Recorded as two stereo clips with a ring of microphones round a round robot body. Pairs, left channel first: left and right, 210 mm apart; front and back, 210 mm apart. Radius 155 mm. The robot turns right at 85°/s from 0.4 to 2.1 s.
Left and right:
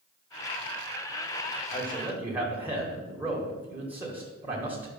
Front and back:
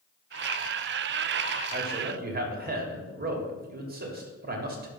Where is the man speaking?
155° left, 2 m; by 4.9 s 170° right, 2 m.